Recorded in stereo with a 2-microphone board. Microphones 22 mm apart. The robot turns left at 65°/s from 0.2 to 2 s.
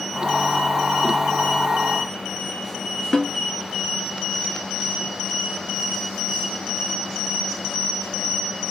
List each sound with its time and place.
3.1 s a snare drum: 15° left (ahead or behind), 1.7 m